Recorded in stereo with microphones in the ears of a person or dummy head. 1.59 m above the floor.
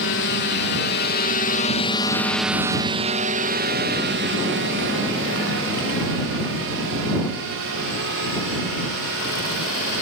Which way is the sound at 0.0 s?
55° left (ahead or behind).